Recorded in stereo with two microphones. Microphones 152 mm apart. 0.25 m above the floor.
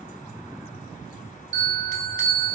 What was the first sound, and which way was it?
A bell, 75° right (ahead or behind).